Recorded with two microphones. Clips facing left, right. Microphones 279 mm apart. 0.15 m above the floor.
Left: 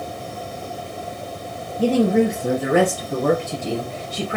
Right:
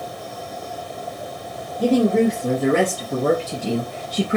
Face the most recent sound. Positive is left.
turn(degrees=-25)  # may be behind; listen again after turning